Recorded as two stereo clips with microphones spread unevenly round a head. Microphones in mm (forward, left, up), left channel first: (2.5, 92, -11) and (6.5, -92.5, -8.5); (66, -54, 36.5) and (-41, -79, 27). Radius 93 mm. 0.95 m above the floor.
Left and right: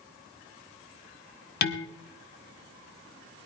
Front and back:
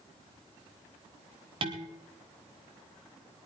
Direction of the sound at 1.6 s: 130° left.